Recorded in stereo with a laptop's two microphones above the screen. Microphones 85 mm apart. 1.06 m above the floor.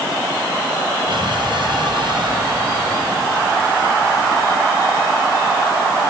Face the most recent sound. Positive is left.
turn(degrees=-65)  # may be behind; listen again after turning